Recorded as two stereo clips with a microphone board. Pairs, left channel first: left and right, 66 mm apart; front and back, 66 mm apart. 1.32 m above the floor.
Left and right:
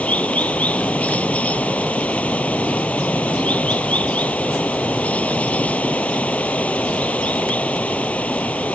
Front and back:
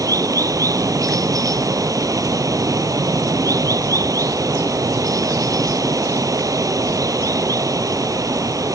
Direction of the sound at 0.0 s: 160° left.